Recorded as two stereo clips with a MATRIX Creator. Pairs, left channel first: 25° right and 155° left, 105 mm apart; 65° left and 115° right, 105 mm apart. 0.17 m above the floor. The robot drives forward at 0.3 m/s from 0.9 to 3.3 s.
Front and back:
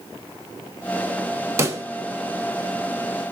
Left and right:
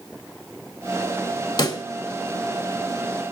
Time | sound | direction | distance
1.6 | a pop | 100° left | 0.5 m